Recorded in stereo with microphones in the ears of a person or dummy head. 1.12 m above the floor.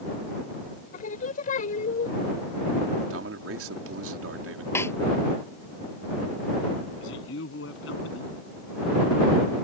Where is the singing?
45° left (ahead or behind).